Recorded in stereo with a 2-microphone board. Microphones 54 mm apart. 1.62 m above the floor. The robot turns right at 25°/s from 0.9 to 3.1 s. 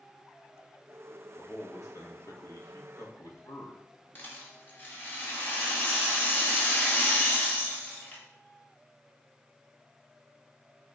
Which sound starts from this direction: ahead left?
A man speaking, at 1.3 s.